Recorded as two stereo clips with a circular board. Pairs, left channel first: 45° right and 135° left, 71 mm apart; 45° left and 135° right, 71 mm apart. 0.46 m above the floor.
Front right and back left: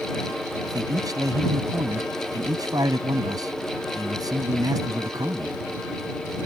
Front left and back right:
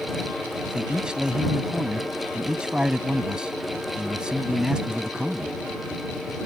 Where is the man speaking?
150° left.